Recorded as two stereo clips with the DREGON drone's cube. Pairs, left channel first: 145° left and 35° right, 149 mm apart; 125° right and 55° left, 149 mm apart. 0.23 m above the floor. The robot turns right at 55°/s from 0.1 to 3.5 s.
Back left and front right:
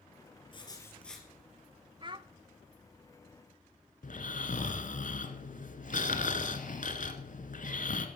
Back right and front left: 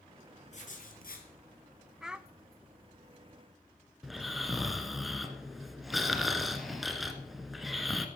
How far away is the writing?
About 3 m.